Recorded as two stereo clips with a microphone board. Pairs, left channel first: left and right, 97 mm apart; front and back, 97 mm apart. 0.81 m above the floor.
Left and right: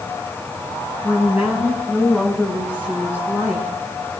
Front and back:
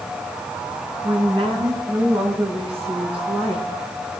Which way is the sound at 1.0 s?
170° right.